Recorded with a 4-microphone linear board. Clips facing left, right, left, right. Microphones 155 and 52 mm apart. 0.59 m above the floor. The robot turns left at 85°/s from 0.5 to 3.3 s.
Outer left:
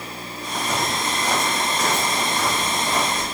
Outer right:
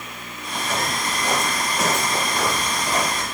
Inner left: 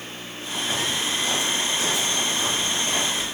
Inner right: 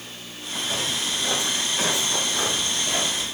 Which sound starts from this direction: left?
Footsteps, at 0.5 s.